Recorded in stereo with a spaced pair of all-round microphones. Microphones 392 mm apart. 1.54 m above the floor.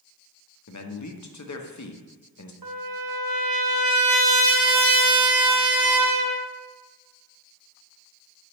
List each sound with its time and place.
0.7 s a man speaking: 50° left (ahead or behind), 0.5 m
2.6 s a trumpet: 60° right (ahead or behind), 0.7 m